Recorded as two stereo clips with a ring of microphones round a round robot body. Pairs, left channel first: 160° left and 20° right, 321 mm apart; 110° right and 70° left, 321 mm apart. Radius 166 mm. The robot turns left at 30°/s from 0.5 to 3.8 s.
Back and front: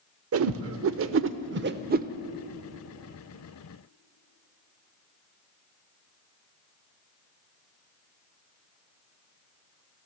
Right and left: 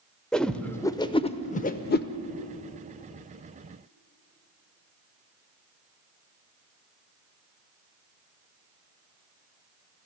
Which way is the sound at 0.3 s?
25° right.